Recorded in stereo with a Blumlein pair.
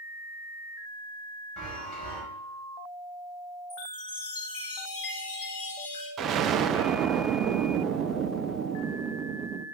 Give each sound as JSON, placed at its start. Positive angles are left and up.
{"t": 1.6, "sound": "a chime", "azimuth_deg": 10, "distance_m": 5.5}
{"t": 3.7, "sound": "a chime", "azimuth_deg": 35, "distance_m": 4.0}
{"t": 6.2, "sound": "an explosion", "azimuth_deg": -30, "distance_m": 0.6}